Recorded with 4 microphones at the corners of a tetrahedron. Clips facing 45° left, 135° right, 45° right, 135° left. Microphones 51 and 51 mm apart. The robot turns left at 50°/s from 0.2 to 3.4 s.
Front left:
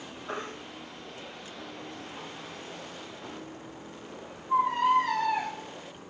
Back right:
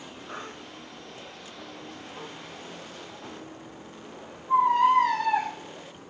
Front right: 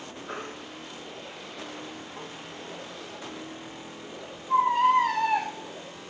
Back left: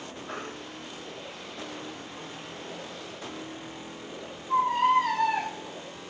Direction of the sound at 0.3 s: 30° left.